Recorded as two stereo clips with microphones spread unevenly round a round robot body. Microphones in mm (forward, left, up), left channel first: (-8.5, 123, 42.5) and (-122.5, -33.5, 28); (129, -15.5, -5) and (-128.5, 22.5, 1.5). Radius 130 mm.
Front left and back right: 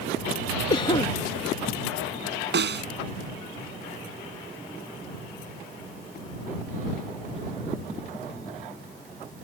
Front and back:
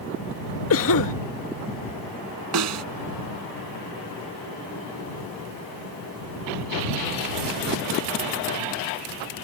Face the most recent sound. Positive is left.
turn(degrees=-155)